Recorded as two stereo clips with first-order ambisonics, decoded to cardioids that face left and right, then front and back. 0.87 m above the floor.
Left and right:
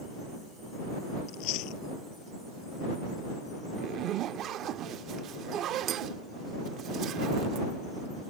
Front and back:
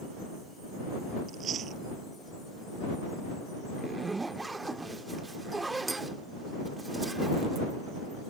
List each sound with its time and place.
1.3 s chewing: 120° left
3.8 s a zipper: 105° right